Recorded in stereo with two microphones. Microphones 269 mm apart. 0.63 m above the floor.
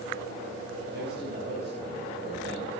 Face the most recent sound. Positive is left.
turn(degrees=-40)  # may be behind; listen again after turning